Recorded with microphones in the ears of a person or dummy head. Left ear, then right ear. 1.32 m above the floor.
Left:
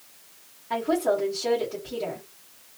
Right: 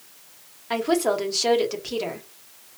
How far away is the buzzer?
I don't hear a buzzer.